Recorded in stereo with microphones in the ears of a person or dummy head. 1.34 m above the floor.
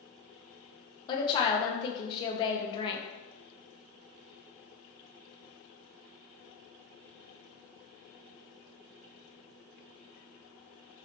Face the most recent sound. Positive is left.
turn(degrees=25)  # may be behind; listen again after turning